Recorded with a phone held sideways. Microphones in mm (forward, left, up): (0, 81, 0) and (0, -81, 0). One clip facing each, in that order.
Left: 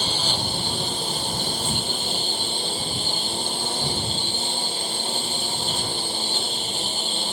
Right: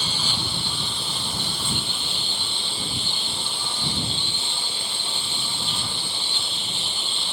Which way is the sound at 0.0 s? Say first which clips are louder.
Left 4 dB; 45° left (ahead or behind).